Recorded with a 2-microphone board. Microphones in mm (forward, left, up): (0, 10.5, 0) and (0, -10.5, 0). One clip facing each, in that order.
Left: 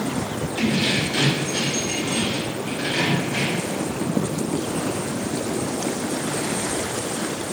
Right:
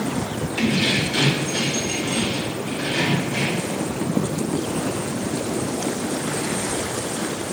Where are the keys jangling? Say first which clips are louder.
Right 1 dB; 25° right (ahead or behind), 2.5 m; by 3.7 s 20° left (ahead or behind), 3 m.